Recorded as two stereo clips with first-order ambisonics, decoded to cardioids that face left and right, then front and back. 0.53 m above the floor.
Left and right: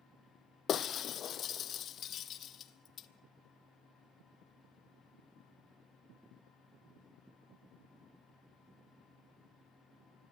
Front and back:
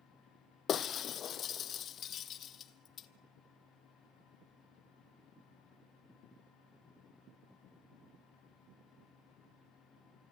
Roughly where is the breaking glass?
Ahead left.